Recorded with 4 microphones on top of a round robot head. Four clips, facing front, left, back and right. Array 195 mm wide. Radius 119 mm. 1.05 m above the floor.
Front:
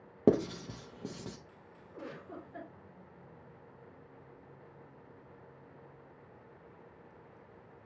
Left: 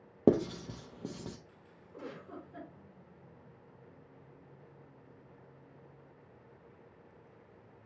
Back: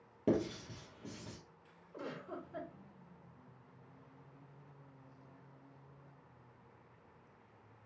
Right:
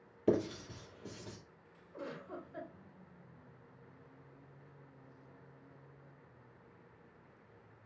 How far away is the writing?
About 0.7 m.